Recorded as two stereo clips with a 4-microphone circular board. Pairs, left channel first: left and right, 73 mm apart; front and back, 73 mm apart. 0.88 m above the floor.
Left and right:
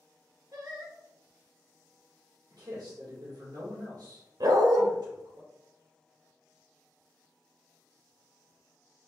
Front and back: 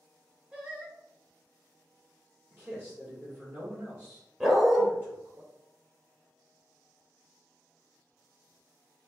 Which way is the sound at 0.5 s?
110° right.